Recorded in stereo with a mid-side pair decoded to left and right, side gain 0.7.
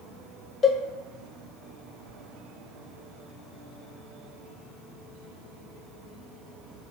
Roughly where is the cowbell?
Ahead left.